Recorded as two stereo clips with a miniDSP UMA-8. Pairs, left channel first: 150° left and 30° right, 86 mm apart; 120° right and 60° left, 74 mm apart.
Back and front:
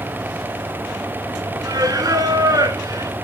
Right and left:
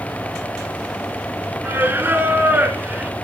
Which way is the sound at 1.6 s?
Straight ahead.